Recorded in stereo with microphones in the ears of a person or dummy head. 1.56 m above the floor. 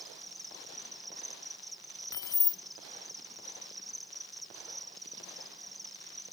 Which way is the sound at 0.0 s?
5° left (ahead or behind).